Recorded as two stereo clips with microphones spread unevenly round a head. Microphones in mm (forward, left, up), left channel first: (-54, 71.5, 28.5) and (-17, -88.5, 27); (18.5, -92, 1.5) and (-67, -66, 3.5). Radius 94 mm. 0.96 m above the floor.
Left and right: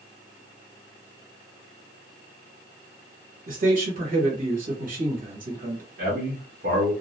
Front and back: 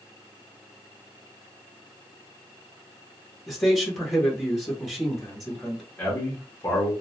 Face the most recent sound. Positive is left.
turn(degrees=-80)